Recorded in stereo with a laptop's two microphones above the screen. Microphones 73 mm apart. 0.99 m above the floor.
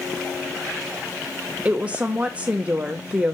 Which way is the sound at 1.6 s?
20° right (ahead or behind).